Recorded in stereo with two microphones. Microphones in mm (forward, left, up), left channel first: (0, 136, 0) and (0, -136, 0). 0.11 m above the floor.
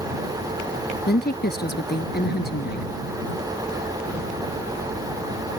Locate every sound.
1.1 s a woman speaking: 35° left (ahead or behind)